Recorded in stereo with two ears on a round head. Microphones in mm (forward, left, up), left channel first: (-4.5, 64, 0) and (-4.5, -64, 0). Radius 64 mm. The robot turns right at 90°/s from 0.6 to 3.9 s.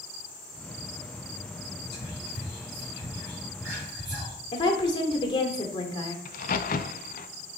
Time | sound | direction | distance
1.9 | whispering | 40° left (ahead or behind) | 5.5 m
4.5 | a woman speaking | 35° left (ahead or behind) | 1.6 m
6.2 | a crack | 65° left (ahead or behind) | 0.7 m